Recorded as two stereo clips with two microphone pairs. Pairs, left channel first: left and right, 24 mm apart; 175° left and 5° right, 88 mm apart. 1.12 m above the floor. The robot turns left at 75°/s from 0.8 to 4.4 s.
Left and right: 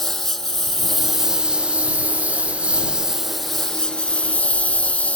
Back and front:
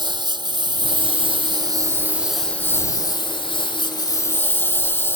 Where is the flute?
I don't hear a flute.